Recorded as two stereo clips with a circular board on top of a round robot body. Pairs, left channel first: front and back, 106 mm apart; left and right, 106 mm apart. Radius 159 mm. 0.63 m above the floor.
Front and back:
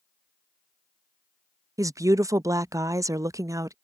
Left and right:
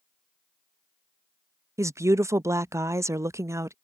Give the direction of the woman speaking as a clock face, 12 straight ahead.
5 o'clock.